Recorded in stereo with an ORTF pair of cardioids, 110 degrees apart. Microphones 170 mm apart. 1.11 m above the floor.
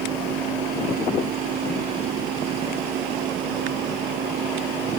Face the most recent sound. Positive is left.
turn(degrees=-65)